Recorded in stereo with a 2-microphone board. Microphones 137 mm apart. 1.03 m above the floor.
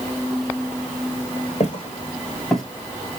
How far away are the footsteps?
About 1.5 m.